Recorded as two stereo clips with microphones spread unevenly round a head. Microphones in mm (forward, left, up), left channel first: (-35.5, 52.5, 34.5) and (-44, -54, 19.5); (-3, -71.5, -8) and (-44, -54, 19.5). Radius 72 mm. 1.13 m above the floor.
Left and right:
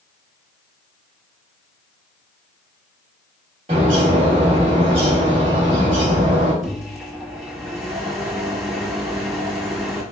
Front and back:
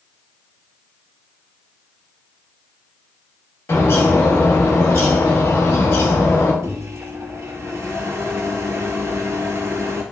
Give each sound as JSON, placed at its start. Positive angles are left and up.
{"t": 3.7, "sound": "a bird", "azimuth_deg": -40, "distance_m": 1.2}
{"t": 6.6, "sound": "a microwave", "azimuth_deg": 180, "distance_m": 1.0}